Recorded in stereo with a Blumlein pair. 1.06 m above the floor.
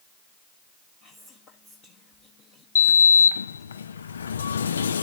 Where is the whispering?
35° left, 1.4 m.